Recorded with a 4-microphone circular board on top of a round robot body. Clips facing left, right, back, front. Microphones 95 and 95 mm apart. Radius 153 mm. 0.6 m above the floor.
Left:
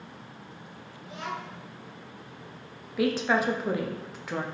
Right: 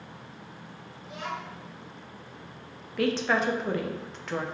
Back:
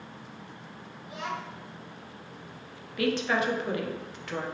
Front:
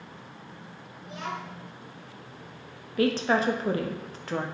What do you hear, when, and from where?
1.0 s a child speaking: 15° left, 1.7 m
3.0 s a woman speaking: 10° left, 0.7 m